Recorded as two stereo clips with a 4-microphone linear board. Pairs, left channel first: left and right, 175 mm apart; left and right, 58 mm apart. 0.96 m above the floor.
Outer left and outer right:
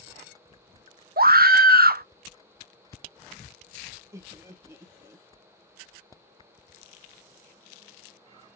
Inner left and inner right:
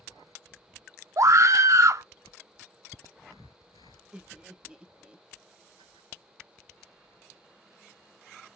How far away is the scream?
About 0.6 m.